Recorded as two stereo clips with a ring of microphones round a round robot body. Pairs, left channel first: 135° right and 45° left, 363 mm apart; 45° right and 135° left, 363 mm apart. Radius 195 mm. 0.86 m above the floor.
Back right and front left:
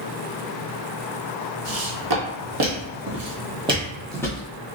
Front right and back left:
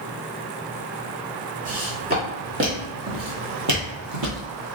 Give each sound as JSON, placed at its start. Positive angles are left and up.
{"t": 1.6, "sound": "footsteps", "azimuth_deg": 70, "distance_m": 1.8}